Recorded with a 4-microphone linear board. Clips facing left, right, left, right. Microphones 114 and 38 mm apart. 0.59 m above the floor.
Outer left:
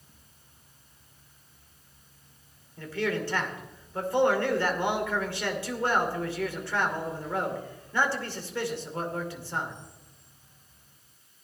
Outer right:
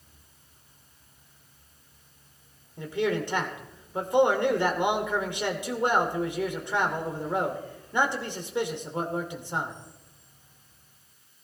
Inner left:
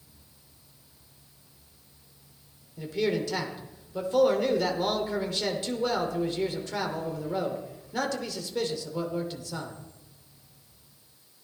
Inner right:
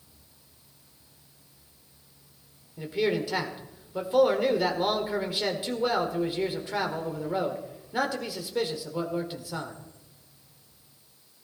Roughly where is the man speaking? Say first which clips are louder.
Outer right 3 dB, inner right 1 dB; centre.